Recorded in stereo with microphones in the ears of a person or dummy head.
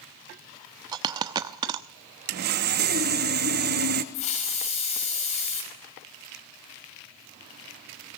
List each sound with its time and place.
0.9 s a dropped coin: 20° right (ahead or behind), 0.9 m
2.3 s sawing: 50° right (ahead or behind), 1.4 m
4.1 s a hiss: 35° left (ahead or behind), 4.5 m